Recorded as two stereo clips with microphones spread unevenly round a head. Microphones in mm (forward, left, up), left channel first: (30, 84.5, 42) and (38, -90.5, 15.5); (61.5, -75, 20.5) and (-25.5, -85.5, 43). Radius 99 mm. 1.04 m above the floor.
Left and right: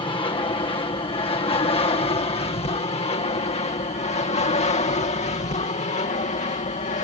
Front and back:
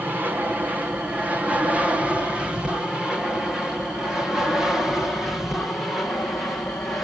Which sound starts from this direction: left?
An aircraft, at 0.0 s.